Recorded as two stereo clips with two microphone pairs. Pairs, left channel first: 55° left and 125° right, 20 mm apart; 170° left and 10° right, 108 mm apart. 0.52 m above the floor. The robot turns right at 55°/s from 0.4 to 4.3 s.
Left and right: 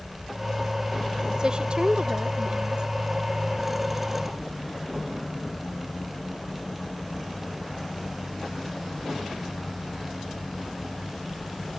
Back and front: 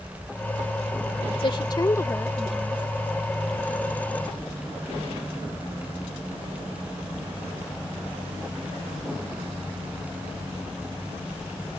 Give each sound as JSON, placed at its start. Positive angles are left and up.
{"t": 1.4, "sound": "a woman speaking", "azimuth_deg": -165}